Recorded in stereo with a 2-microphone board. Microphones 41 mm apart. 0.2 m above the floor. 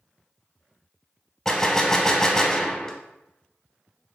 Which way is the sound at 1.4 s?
15° left (ahead or behind).